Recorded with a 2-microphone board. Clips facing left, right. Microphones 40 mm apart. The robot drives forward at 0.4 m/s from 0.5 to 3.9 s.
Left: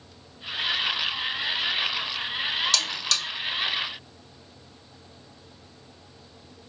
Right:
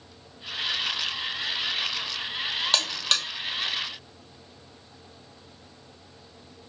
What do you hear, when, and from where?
2.7 s a buzzer: 40° right (ahead or behind), 1.3 m; by 3.2 s 45° right (ahead or behind), 1.1 m